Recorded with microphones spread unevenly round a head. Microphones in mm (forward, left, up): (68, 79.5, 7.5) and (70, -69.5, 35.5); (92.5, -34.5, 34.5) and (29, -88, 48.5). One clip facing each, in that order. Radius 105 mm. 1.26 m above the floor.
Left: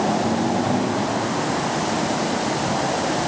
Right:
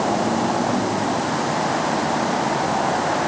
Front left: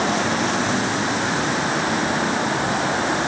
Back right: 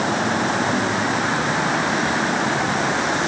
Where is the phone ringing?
I don't hear a phone ringing.